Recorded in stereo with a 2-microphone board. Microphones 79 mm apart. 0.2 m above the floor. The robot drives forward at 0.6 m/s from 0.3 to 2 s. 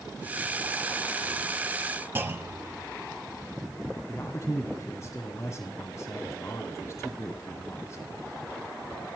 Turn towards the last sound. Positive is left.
turn(degrees=40)  # may be behind; listen again after turning